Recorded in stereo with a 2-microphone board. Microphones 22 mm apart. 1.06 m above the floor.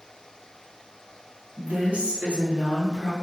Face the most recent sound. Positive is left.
turn(degrees=-35)  # may be behind; listen again after turning